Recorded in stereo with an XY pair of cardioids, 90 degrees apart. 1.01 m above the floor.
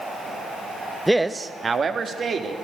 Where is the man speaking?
Straight ahead, 0.7 m; by 2.5 s 55° right, 2.5 m.